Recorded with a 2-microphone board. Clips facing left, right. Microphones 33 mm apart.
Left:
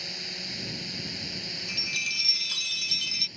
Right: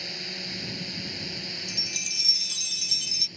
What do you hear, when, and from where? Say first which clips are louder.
0.0 s a drone: right 1 dB; 5° right (ahead or behind); by 3.4 s centre (ahead or behind)
1.7 s a chime: left 7 dB; 35° left (ahead or behind)